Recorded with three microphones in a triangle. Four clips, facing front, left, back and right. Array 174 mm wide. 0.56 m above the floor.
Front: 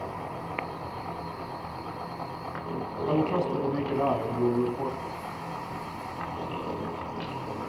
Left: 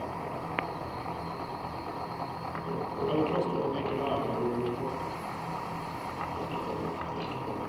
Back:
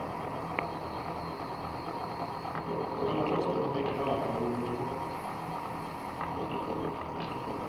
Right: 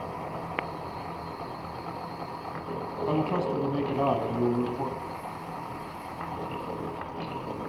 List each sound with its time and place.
3.1 s a man speaking: 60° right, 4.5 m